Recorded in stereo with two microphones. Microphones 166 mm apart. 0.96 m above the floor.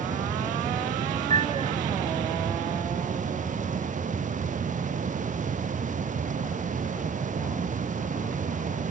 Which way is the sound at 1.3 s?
45° right (ahead or behind).